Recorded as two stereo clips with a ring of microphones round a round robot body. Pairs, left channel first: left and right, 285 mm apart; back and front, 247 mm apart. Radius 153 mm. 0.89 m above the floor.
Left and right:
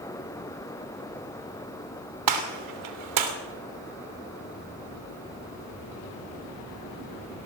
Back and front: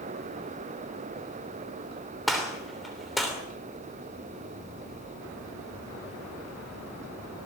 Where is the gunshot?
90° right, 3 m.